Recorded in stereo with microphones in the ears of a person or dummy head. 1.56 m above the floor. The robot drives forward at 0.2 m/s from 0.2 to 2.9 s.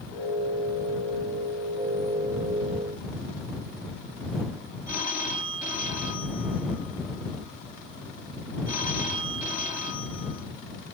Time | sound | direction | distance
4.9 | a phone ringing | 15° right (ahead or behind) | 1.1 m